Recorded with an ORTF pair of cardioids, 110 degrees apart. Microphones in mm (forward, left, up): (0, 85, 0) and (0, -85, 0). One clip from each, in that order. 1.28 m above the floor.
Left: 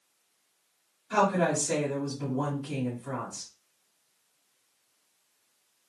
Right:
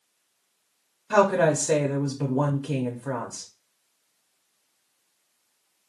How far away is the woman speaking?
About 0.8 m.